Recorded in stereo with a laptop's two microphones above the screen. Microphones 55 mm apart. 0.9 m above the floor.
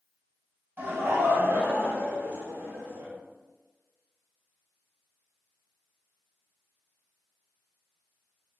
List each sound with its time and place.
0.8 s laughter: 45° right (ahead or behind), 1.2 m; by 3.1 s 40° right (ahead or behind), 1.9 m